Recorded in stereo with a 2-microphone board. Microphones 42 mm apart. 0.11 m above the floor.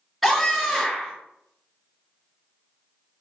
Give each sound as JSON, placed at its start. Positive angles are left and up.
{"t": 0.2, "sound": "a scream", "side_deg": -5, "distance_m": 1.9}